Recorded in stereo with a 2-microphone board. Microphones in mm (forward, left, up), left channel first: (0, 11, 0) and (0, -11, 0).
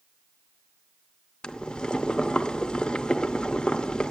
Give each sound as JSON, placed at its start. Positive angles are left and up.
{"t": 1.4, "sound": "boiling", "side_deg": 45, "distance_m": 0.5}